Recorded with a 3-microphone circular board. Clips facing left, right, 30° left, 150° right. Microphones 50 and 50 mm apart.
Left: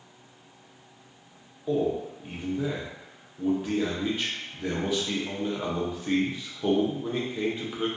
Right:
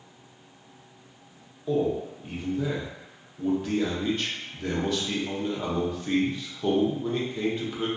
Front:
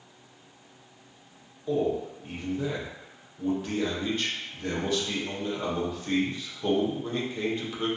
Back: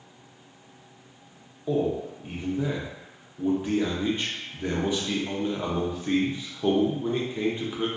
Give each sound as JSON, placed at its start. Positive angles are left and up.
{"t": 1.7, "sound": "a man speaking", "azimuth_deg": 160, "distance_m": 0.6}